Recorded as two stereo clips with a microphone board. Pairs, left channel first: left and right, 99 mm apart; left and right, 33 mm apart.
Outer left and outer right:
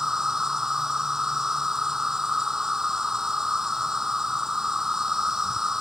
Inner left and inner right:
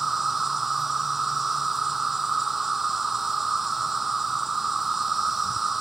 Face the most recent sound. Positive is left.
turn(degrees=-5)  # may be behind; listen again after turning